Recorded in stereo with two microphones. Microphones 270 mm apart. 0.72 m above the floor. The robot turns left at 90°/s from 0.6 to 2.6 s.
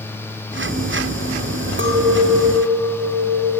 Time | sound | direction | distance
1.8 | a clink | 45° right | 0.6 m